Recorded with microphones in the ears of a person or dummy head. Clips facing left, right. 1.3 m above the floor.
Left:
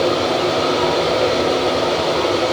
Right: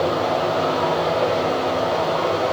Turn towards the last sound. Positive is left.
turn(degrees=35)  # may be behind; listen again after turning